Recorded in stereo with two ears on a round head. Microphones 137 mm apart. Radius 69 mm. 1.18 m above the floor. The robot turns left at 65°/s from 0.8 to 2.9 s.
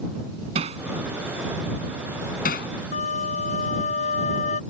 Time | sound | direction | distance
0.6 | hammering | 45° right (ahead or behind) | ?
2.9 | a flute | 50° left (ahead or behind) | ?